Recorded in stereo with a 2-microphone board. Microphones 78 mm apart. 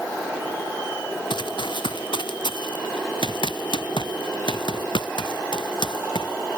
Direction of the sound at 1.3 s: 75° left (ahead or behind).